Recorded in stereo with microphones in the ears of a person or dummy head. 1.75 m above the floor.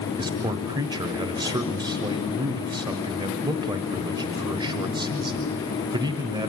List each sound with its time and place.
0.2 s a man speaking: 20° right (ahead or behind), 1.1 m